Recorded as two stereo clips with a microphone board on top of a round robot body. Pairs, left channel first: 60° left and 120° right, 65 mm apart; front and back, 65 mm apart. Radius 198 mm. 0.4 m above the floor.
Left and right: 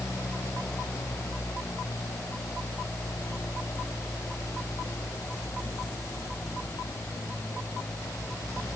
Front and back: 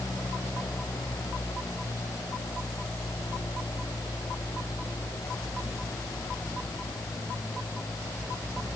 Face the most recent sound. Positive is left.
No sound to turn to.